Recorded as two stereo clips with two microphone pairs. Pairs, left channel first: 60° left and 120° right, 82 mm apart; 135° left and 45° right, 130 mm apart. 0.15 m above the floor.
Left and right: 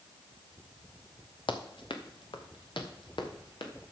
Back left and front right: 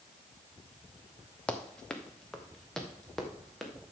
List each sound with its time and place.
1.5 s running footsteps: 55° left, 1.5 m; by 3.7 s 50° left, 3 m